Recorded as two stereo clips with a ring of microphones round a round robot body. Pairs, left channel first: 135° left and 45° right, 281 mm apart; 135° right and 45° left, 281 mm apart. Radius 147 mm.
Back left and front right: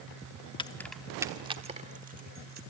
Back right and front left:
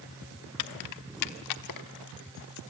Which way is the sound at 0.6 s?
155° right.